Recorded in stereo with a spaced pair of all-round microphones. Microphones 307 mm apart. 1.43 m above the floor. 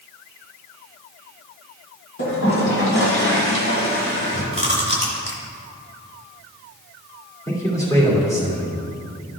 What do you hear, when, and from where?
2.2 s a toilet flushing: 45° left (ahead or behind), 1.9 m
4.5 s chewing: 20° right (ahead or behind), 1.6 m
7.5 s a man speaking: 10° left (ahead or behind), 2.5 m